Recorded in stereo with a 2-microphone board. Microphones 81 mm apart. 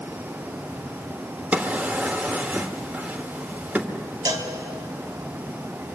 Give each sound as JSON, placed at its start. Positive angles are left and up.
{"t": 1.5, "sound": "a drawer", "side_deg": -15, "distance_m": 1.3}
{"t": 4.2, "sound": "a cowbell", "side_deg": -45, "distance_m": 2.0}